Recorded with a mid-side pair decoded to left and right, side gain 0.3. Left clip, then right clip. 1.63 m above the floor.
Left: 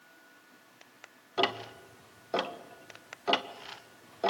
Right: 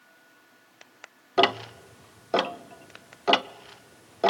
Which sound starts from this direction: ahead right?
Ticking, at 1.4 s.